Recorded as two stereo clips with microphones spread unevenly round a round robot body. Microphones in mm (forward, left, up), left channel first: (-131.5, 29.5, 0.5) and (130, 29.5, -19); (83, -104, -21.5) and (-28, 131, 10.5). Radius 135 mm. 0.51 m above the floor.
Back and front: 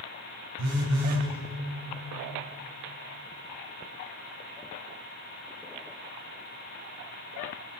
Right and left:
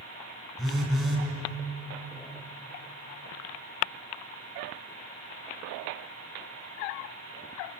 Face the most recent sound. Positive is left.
turn(degrees=25)